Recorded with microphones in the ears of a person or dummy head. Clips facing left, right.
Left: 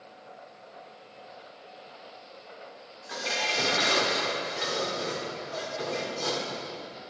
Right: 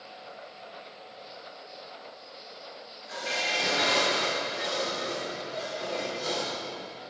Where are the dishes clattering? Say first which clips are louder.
Left 1 dB; 70° left (ahead or behind), 2 m.